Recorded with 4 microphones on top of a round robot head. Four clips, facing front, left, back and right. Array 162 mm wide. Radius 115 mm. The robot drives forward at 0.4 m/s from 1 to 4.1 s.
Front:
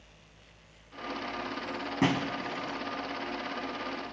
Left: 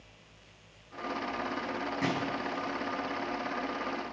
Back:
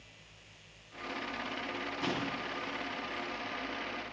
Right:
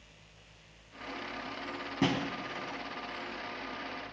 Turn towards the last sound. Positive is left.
turn(degrees=-35)